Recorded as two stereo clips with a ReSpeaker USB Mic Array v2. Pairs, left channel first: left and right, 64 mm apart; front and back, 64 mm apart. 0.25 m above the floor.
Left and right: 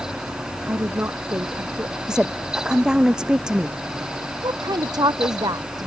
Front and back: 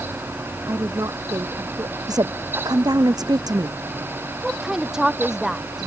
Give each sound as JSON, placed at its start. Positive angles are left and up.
{"t": 0.7, "sound": "a woman speaking", "azimuth_deg": -145}
{"t": 2.1, "sound": "a woman speaking", "azimuth_deg": -170}
{"t": 4.4, "sound": "a woman speaking", "azimuth_deg": -100}